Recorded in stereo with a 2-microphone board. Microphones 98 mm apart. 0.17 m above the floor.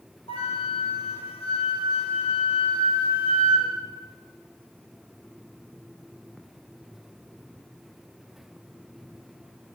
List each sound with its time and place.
0.3 s a flute: 75° left (ahead or behind), 6 m